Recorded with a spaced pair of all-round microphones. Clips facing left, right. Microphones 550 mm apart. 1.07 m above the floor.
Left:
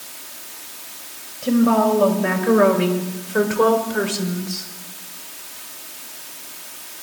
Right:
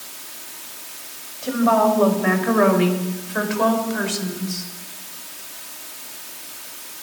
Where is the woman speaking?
50° left (ahead or behind), 5.5 m; by 4.7 s 80° left, 4 m.